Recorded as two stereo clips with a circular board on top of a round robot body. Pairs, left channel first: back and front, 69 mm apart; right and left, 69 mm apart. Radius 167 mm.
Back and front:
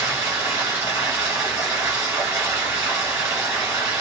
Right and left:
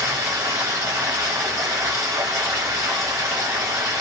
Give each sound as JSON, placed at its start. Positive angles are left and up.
{"t": 0.0, "sound": "running water", "azimuth_deg": 55, "distance_m": 1.5}